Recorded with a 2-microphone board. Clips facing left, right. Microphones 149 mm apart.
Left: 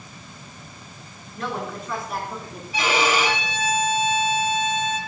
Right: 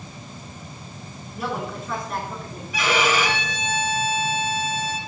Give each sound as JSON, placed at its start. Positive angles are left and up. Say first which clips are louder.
{"t": 1.4, "sound": "a woman speaking", "louder": "right 1 dB", "side_deg": -10, "distance_m": 3.5}
{"t": 2.7, "sound": "a violin", "louder": "even", "side_deg": 35, "distance_m": 2.0}